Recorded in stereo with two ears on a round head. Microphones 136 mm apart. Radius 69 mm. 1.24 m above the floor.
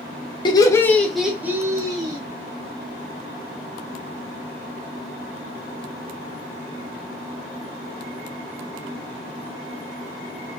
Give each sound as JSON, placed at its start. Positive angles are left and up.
{"t": 0.5, "sound": "laughter", "side_deg": 30, "distance_m": 0.6}